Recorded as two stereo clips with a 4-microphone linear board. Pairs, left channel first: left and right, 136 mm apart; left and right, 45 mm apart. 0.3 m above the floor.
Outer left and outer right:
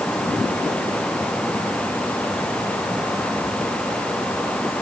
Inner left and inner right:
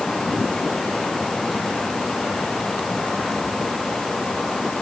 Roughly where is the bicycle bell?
No bicycle bell in this recording.